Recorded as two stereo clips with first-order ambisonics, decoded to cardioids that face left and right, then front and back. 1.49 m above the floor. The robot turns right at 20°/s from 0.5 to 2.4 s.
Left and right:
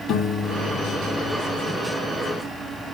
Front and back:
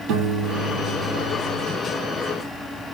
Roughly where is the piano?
Behind left.